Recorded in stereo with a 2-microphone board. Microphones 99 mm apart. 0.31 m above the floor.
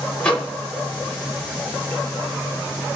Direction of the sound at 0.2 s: 10° left (ahead or behind).